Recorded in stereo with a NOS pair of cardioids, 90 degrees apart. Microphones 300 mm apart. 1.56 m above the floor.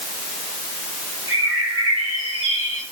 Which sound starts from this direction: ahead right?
A bird, at 1.3 s.